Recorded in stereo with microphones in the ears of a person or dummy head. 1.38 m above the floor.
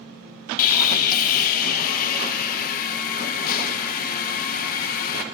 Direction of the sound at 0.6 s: 55° left (ahead or behind).